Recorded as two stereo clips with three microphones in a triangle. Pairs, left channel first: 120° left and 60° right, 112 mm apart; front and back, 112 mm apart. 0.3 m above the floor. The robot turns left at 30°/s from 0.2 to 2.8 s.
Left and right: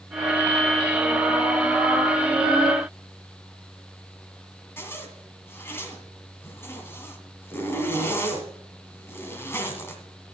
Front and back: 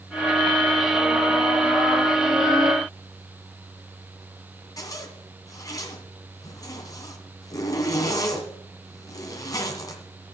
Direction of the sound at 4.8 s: 55° left.